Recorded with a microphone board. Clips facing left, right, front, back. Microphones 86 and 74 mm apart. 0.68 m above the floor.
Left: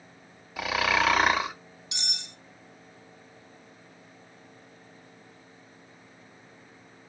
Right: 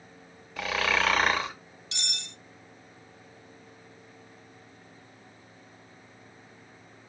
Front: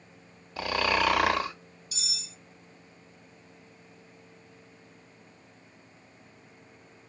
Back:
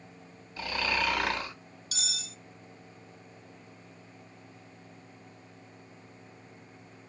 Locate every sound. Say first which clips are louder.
0.6 s snoring: left 2 dB, front 5 dB; 5° left, 1.1 m
1.9 s cutlery clinking: right 1 dB, back 5 dB; 165° left, 0.7 m